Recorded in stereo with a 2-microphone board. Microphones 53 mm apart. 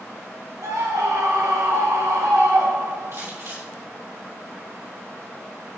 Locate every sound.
0.6 s a scream: 75° right (ahead or behind), 1.7 m
3.1 s crumpling: 60° right (ahead or behind), 4 m